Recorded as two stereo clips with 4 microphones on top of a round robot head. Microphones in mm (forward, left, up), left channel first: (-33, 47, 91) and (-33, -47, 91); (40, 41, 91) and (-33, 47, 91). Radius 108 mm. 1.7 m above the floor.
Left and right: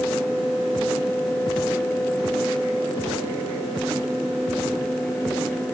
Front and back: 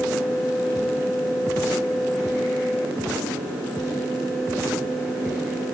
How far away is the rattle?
I don't hear a rattle.